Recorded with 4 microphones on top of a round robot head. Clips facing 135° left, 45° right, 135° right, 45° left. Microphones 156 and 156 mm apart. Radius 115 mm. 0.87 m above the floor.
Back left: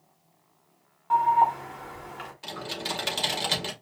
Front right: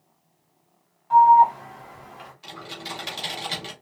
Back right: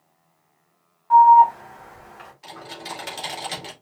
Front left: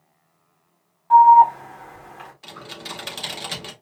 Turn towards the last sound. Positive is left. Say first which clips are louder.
# back left 4 dB, back right 3 dB
turn(degrees=105)